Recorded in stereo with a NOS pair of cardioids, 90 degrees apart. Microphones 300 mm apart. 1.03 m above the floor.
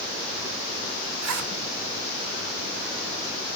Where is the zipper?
70° right, 2 m.